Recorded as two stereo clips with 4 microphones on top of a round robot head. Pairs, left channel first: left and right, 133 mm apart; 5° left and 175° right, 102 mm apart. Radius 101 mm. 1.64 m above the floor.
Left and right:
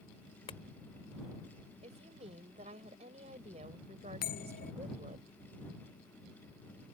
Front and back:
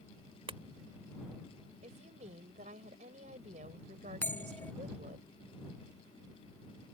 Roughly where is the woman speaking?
Behind right.